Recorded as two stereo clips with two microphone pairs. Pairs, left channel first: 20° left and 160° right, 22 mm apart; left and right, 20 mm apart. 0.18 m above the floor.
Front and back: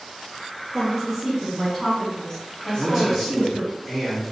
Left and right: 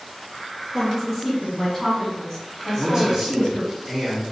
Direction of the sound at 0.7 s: 155° left.